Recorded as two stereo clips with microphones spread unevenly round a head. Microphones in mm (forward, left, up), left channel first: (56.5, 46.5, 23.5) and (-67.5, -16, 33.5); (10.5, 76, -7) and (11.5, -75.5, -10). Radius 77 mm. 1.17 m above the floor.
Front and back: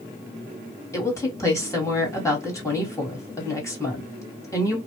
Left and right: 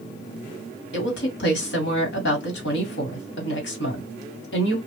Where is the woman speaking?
95° left, 1.6 m.